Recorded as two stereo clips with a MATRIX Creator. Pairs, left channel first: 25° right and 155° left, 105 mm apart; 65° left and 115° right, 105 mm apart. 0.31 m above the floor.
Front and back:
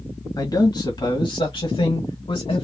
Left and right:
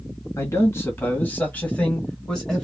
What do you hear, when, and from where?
0.4 s a man speaking: 15° left, 1.9 m; by 2.6 s 15° right, 2.5 m